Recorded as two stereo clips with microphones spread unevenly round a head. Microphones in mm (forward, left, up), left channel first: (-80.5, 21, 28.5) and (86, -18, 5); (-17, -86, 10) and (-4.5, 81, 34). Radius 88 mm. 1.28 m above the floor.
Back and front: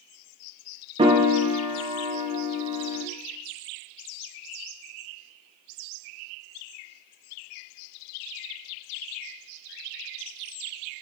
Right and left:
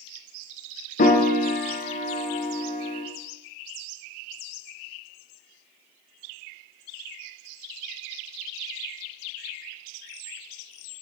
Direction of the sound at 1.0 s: 65° right.